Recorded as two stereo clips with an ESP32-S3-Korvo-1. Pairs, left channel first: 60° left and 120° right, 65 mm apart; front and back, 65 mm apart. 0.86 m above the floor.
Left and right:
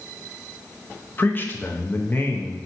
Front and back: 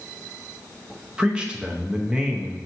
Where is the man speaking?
110° left, 0.5 m.